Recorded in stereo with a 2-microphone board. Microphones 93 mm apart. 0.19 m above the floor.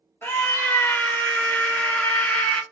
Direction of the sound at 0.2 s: 20° left (ahead or behind).